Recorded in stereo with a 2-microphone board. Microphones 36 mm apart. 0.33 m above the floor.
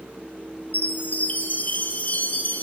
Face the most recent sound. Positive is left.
turn(degrees=45)  # may be behind; listen again after turning